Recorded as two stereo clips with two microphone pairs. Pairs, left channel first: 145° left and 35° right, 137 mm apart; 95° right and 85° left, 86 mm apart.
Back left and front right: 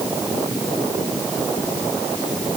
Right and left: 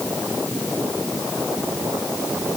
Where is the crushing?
No crushing in this recording.